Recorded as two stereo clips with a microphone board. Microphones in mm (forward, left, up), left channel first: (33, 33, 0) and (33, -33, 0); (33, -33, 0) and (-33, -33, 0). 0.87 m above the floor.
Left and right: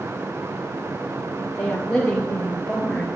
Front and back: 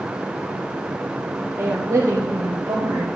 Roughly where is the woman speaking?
Behind.